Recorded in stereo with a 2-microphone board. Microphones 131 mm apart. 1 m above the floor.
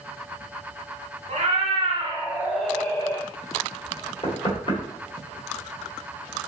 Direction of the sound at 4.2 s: 35° left (ahead or behind).